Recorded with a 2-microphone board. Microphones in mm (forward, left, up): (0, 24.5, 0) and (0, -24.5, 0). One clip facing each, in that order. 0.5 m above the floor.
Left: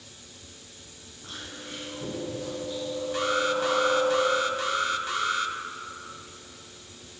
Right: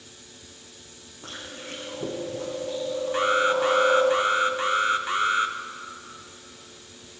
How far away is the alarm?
About 0.5 m.